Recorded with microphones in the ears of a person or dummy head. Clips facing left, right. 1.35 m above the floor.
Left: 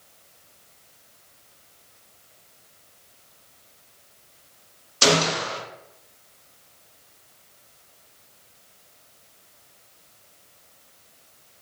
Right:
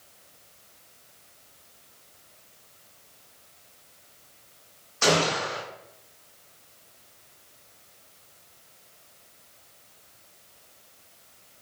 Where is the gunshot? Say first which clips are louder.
Left 2 dB; 45° left (ahead or behind), 0.6 m.